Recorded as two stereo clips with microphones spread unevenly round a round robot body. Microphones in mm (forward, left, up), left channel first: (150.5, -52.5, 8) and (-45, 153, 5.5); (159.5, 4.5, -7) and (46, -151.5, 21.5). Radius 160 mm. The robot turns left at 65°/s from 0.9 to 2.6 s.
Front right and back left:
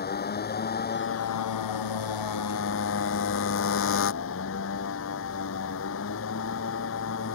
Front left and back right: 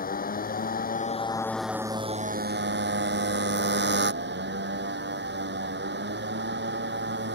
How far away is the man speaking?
No man speaking in this recording.